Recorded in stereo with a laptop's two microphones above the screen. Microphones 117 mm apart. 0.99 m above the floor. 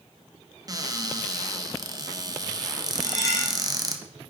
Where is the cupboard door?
30° right (ahead or behind), 0.7 m.